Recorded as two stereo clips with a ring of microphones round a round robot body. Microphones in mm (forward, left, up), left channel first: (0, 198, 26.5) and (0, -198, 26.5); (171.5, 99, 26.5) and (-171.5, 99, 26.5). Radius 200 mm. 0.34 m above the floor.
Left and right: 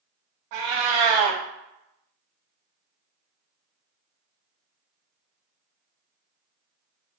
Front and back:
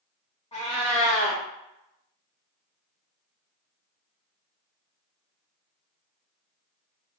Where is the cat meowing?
75° right, 0.7 m.